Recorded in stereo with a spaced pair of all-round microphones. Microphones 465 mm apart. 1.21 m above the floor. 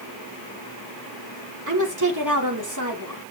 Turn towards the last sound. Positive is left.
turn(degrees=-40)  # may be behind; listen again after turning